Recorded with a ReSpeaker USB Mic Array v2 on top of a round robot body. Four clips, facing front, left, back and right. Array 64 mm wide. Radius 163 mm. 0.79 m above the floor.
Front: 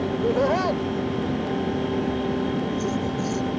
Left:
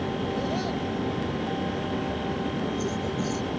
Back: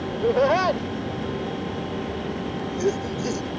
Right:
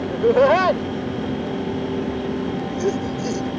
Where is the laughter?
100° right; by 3.5 s 145° right.